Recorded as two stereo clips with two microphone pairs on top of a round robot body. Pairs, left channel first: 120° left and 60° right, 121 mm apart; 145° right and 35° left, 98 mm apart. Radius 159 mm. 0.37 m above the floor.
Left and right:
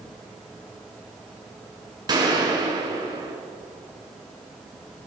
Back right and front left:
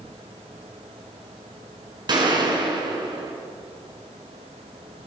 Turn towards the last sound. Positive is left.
turn(degrees=-5)